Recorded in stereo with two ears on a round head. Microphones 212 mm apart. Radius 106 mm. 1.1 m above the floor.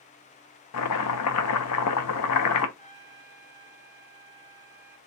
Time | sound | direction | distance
0.7 | chopping | 70° left (ahead or behind) | 0.6 m
2.8 | a trumpet | 30° left (ahead or behind) | 1.6 m